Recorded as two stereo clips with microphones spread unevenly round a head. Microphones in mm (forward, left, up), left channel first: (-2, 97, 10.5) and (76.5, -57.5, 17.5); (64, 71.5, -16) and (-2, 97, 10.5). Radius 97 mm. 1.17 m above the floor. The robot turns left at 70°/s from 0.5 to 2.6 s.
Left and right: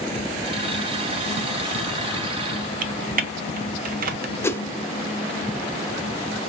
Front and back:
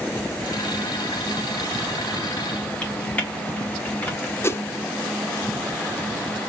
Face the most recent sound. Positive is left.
turn(degrees=40)